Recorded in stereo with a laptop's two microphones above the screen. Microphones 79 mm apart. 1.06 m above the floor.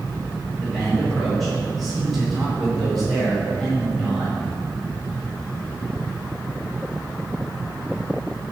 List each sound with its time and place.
0.6 s a man speaking: centre (ahead or behind), 4 m